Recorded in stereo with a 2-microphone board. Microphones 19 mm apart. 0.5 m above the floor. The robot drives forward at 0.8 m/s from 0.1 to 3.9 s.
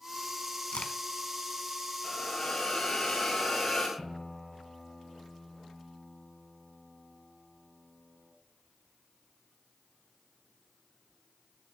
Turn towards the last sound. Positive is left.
turn(degrees=80)